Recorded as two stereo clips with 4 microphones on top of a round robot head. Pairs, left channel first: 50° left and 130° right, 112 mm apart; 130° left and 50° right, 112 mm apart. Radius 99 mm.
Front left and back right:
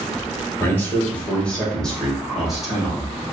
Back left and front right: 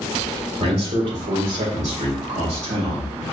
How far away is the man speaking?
About 1.7 m.